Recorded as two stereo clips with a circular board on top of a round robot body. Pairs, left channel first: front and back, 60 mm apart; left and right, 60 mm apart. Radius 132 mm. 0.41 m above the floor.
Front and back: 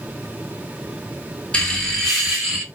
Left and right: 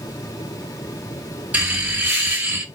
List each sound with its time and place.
1.5 s laughter: 55° right, 1.4 m; by 2.6 s 110° right, 1.5 m